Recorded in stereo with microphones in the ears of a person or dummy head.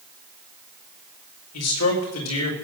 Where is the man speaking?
85° left, 4.5 m.